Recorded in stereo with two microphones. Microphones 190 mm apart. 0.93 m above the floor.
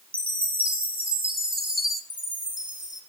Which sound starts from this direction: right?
A chime, at 0.1 s.